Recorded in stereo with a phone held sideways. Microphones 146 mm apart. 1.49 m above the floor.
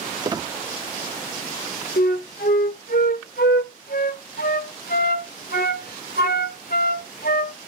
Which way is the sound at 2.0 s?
80° left.